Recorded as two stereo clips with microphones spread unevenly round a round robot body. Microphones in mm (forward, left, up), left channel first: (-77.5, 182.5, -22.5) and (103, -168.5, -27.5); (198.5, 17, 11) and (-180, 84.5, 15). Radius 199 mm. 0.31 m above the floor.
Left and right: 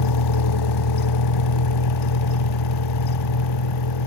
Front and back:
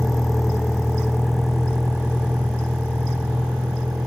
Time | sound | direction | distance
0.0 | a vehicle | 80° left | ?